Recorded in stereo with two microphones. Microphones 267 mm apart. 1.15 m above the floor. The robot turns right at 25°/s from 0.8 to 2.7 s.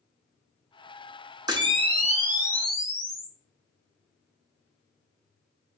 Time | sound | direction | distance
1.5 | a camera shutter | 160° right | 0.9 m